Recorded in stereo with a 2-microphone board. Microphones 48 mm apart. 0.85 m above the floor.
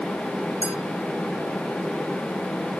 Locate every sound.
0.6 s a clink: 80° left, 2.5 m